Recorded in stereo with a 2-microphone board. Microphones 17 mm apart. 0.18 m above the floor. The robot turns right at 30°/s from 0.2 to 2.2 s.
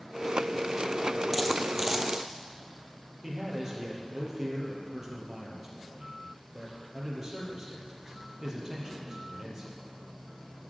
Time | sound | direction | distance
1.3 | a dropped coin | 5° right (ahead or behind) | 1.7 m
3.2 | a man speaking | 15° right (ahead or behind) | 5.5 m